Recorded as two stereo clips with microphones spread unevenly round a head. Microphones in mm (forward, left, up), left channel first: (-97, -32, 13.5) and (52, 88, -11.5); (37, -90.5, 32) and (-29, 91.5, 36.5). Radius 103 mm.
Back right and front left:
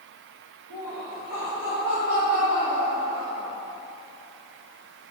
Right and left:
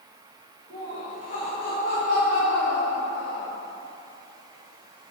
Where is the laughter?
130° right, 3 m; by 3.5 s 40° right, 2 m.